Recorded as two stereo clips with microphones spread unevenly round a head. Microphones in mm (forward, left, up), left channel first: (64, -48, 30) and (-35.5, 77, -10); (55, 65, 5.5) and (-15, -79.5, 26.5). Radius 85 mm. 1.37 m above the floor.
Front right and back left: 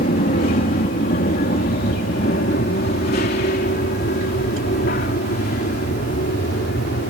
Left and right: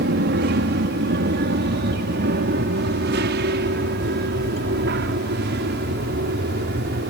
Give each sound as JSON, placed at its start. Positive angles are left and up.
{"t": 0.0, "sound": "an aircraft", "azimuth_deg": -100}